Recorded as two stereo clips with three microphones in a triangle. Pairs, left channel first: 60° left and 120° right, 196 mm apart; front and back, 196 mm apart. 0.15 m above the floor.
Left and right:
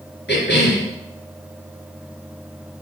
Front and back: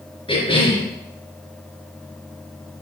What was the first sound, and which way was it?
A cough, 60° left.